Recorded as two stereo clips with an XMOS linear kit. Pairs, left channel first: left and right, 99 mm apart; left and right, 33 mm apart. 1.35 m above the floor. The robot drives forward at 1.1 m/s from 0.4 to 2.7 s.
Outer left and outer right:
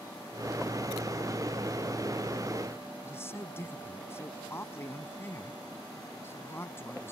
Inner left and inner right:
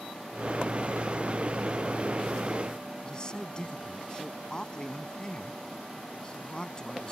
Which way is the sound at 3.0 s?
25° left (ahead or behind).